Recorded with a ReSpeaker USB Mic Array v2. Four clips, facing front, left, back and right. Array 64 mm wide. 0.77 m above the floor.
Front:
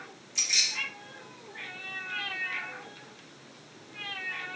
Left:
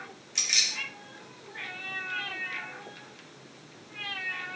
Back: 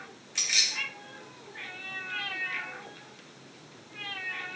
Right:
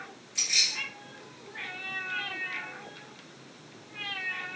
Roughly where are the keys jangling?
Behind left.